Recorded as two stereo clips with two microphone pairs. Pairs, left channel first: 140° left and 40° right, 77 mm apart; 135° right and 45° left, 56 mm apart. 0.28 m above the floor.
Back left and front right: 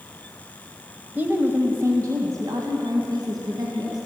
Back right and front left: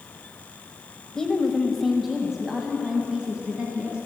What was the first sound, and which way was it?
A woman speaking, 70° right.